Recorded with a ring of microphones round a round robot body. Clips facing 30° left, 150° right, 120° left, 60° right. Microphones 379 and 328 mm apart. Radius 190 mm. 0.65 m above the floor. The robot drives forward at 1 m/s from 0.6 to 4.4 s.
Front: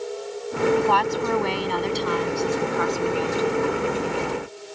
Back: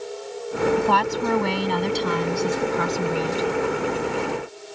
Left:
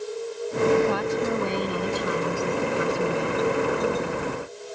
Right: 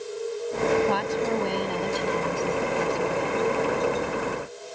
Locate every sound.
0.8 s a woman speaking: 150° right; by 3.5 s 160° right